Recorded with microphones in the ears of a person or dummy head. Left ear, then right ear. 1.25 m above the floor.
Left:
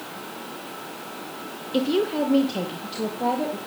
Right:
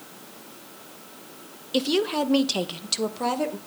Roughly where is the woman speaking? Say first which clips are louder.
Even; right.